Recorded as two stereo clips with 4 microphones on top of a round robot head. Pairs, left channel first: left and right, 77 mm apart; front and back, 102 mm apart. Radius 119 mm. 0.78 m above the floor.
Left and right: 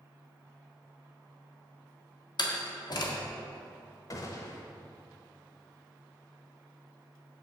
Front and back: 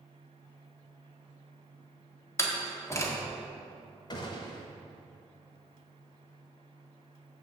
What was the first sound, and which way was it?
A door slam, 65° left.